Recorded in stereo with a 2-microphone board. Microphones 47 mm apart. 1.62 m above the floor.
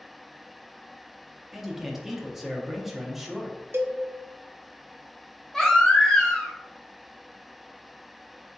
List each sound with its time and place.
1.5 s a man speaking: 5° right (ahead or behind), 1.0 m
3.7 s a cowbell: 50° right (ahead or behind), 0.6 m
5.5 s a baby crying: 10° left (ahead or behind), 0.9 m